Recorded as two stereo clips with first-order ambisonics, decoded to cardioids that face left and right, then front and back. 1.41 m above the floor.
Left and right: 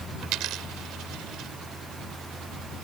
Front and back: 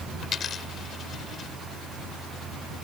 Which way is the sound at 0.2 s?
60° right.